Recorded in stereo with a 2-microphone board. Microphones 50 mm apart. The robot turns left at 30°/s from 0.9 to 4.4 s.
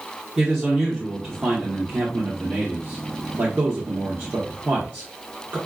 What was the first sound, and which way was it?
A man speaking, 10° right.